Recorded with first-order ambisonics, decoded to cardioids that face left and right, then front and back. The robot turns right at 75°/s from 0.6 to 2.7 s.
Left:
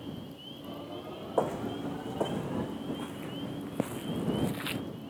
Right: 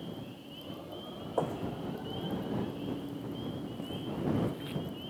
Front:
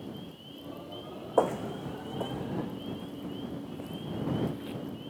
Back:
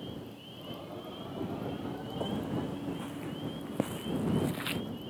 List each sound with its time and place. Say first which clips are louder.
1.4 s footsteps: left 3 dB, front 12 dB; 10° left; by 4.8 s 140° left